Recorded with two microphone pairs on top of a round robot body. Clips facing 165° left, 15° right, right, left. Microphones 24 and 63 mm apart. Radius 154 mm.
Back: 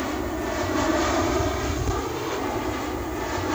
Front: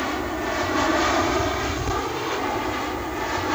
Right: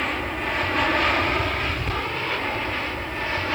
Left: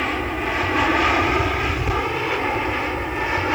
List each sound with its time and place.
0.0 s an aircraft: 35° left; by 3.6 s 50° left